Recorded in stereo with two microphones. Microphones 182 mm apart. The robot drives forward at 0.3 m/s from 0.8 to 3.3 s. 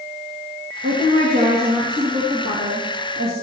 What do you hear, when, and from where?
0.8 s a woman speaking: 60° right (ahead or behind), 3 m; by 3.3 s 65° right (ahead or behind), 3 m